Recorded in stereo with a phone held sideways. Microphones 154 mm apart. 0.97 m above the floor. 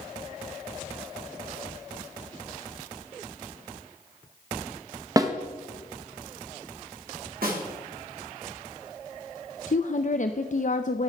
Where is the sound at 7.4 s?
75° right (ahead or behind), 3 m.